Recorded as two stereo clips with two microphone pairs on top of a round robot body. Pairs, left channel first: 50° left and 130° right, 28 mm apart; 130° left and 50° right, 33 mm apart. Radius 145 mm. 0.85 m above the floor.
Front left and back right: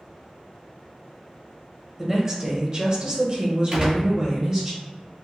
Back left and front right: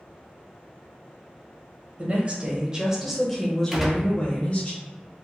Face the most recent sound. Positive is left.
turn(degrees=-110)